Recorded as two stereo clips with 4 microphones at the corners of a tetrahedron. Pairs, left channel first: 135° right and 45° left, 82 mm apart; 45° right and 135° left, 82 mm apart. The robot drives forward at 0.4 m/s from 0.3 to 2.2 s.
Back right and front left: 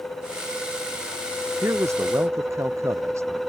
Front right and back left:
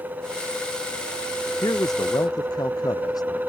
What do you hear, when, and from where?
1.6 s a man speaking: 10° right